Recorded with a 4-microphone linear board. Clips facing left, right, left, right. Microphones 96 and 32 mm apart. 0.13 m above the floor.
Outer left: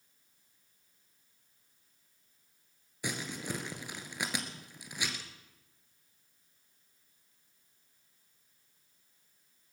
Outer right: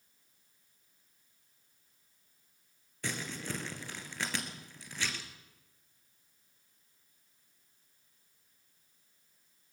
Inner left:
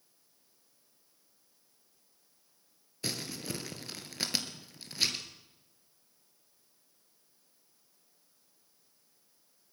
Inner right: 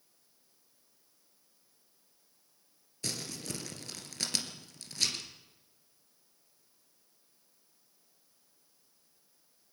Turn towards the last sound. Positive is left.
turn(degrees=15)  # may be behind; listen again after turning